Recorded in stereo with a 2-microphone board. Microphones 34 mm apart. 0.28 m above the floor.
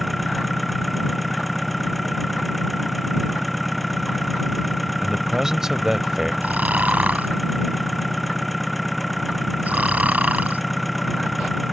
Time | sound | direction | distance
0.0 | an engine running | centre (ahead or behind) | ?
5.0 | a man speaking | 15° right (ahead or behind) | ?
6.4 | snoring | 55° right (ahead or behind) | ?